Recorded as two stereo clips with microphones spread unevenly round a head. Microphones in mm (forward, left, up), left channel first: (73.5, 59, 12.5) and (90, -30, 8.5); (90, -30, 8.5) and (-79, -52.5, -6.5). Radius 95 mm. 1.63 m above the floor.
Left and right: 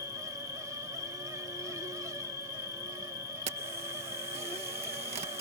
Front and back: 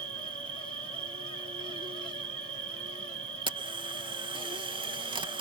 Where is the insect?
130° left.